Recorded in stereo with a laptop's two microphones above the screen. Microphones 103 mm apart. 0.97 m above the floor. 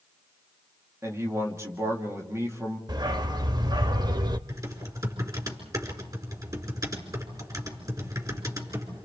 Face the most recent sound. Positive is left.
turn(degrees=-35)  # may be behind; listen again after turning